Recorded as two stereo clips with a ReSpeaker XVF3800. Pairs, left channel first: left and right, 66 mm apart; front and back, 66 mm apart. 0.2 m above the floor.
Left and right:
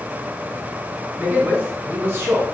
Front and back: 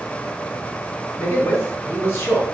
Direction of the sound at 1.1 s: 35° right.